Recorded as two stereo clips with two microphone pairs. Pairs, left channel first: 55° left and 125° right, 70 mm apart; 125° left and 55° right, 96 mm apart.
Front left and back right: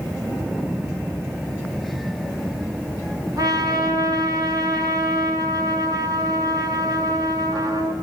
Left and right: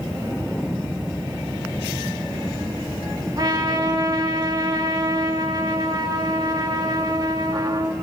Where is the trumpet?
100° right, 5 m.